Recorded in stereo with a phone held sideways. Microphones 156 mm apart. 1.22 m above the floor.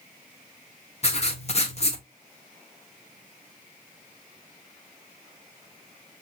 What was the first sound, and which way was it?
Writing, 45° left (ahead or behind).